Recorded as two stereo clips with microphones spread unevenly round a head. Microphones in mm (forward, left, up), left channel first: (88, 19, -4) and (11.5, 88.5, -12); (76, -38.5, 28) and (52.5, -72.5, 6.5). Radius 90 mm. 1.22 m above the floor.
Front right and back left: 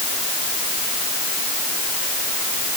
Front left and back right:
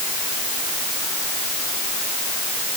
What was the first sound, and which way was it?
Only background noise.